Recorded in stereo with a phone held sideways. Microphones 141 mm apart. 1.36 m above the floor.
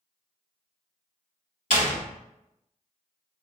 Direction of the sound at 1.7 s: 70° left (ahead or behind).